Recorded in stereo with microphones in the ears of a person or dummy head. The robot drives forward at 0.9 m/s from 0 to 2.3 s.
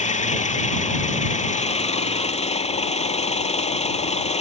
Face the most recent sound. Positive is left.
turn(degrees=30)  # may be behind; listen again after turning